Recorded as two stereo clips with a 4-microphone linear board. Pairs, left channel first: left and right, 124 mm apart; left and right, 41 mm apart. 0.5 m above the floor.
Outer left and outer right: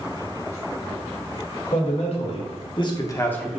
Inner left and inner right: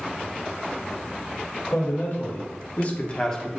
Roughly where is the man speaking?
Left.